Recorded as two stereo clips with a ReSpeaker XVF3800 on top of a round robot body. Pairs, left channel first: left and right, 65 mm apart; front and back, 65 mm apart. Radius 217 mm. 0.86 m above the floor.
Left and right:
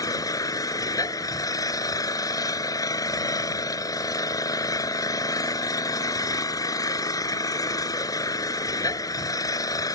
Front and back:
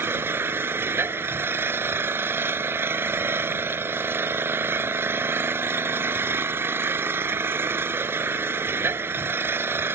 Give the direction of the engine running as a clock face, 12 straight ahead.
8 o'clock.